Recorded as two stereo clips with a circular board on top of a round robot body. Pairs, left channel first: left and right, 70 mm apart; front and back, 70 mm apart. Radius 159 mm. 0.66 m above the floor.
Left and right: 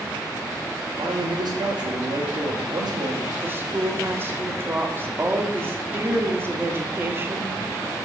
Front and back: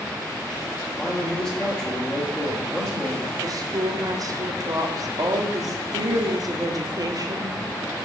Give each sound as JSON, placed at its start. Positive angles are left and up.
{"t": 1.0, "sound": "a man speaking", "azimuth_deg": -80, "distance_m": 2.5}
{"t": 3.4, "sound": "a woman speaking", "azimuth_deg": -150, "distance_m": 1.5}